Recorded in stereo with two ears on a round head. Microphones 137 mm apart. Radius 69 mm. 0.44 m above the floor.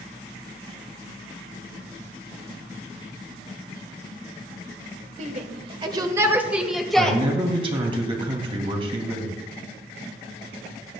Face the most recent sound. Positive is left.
turn(degrees=-35)  # may be behind; listen again after turning